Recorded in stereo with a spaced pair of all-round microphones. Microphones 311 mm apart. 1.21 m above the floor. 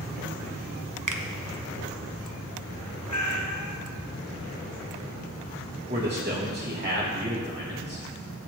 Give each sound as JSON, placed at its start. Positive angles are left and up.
{"t": 1.1, "sound": "a finger snap", "side_deg": -75, "distance_m": 0.8}
{"t": 3.1, "sound": "a cat meowing", "side_deg": 65, "distance_m": 0.8}
{"t": 5.9, "sound": "a man speaking", "side_deg": -35, "distance_m": 1.6}